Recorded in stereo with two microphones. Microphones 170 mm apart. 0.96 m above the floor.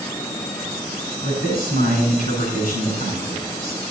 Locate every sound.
1.2 s a man speaking: 55° left (ahead or behind), 5.5 m